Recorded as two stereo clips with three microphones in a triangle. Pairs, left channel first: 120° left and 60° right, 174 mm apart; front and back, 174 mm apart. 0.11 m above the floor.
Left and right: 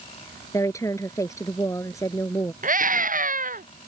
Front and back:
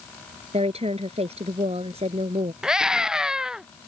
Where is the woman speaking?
Straight behind.